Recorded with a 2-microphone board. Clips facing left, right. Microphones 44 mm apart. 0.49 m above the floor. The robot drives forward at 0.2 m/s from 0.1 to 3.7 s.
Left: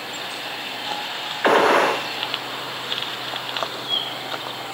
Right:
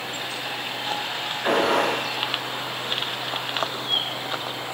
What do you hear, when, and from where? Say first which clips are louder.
1.4 s a gunshot: left 5 dB; 70° left (ahead or behind), 0.5 m; by 2.1 s 80° left, 0.5 m